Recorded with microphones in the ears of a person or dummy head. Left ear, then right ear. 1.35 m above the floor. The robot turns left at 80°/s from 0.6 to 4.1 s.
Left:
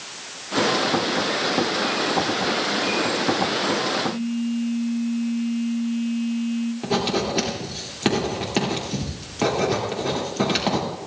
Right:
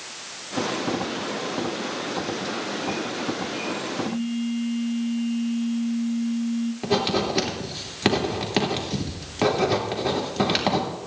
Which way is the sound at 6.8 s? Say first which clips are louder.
Even; 10° right (ahead or behind).